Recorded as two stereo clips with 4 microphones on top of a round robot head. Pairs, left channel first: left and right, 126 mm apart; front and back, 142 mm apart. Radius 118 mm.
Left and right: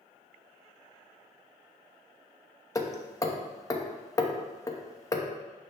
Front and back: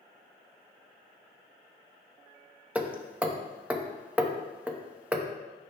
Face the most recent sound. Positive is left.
turn(degrees=110)